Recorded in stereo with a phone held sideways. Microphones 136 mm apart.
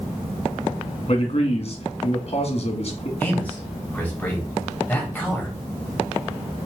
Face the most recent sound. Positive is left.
turn(degrees=15)  # may be behind; listen again after turning